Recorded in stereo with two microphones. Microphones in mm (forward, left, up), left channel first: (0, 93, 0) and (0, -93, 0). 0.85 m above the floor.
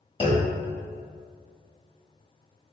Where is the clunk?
30° left (ahead or behind), 0.9 m.